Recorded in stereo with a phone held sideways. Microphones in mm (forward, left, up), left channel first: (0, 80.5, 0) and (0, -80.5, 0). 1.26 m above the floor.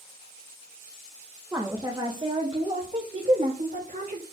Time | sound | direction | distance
1.5 | a woman speaking | 10° right (ahead or behind) | 1.7 m